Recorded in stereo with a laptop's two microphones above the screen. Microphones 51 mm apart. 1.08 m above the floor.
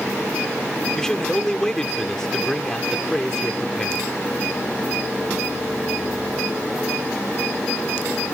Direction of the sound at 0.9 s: 10° left (ahead or behind).